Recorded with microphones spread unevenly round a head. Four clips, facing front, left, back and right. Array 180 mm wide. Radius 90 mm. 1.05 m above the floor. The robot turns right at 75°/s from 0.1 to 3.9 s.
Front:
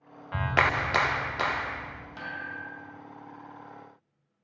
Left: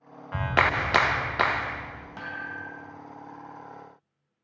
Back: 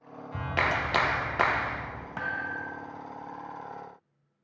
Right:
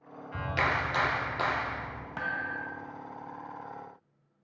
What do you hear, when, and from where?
0.3 s a clap: 60° left, 0.6 m; by 2.1 s 170° right, 0.6 m
2.2 s a thud: 140° right, 0.5 m; by 3.0 s 80° right, 0.5 m